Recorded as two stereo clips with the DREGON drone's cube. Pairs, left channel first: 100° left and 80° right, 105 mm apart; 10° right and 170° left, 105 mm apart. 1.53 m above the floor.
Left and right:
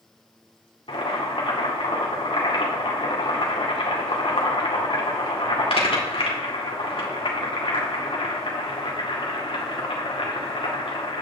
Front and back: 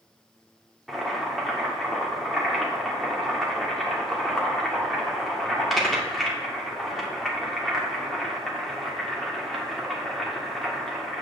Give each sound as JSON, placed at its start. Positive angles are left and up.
{"t": 0.9, "sound": "boiling", "azimuth_deg": 80, "distance_m": 2.0}